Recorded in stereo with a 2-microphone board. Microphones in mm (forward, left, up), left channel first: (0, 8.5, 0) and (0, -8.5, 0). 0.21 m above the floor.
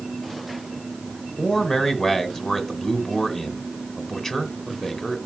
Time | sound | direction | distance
1.4 | a man speaking | 30° left (ahead or behind) | 1.9 m